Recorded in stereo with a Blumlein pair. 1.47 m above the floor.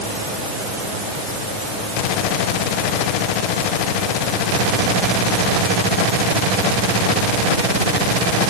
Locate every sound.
Only background noise.